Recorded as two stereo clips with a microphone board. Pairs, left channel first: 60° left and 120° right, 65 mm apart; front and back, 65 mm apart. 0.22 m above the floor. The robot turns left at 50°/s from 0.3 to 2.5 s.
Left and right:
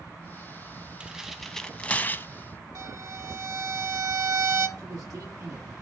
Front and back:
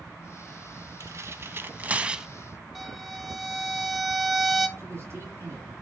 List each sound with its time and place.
1.0 s tearing paper: 170° left, 0.6 m; by 2.3 s 105° left, 0.6 m
2.8 s a violin: 90° right, 0.9 m
4.8 s a man speaking: 130° right, 3.5 m